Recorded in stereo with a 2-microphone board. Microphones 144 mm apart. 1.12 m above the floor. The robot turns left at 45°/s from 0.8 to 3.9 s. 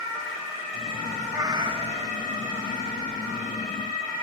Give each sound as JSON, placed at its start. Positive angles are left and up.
{"t": 1.3, "sound": "a cat meowing", "azimuth_deg": -20, "distance_m": 1.0}